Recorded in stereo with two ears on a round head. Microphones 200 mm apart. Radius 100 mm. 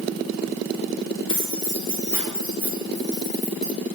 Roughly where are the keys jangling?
Left.